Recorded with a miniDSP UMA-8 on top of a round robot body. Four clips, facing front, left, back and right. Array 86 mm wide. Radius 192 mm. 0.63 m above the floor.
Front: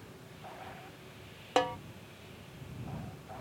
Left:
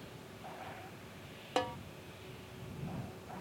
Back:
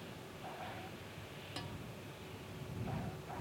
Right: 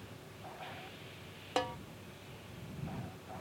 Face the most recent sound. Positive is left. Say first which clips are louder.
# even, front 20 dB
turn(degrees=0)